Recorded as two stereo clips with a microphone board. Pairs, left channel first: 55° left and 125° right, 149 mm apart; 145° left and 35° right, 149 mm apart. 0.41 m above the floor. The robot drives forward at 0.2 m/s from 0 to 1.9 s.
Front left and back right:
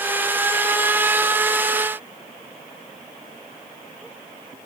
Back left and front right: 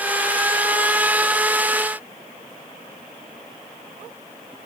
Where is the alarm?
No alarm in this recording.